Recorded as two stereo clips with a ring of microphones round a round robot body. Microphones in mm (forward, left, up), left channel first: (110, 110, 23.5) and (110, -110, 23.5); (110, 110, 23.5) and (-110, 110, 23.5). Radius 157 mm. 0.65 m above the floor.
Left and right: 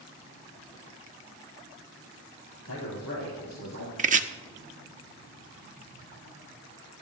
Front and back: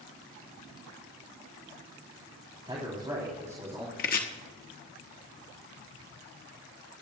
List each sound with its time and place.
2.7 s a man speaking: 110° left, 4 m; by 3.9 s 100° left, 3.5 m
4.0 s chopping: 45° right, 1.0 m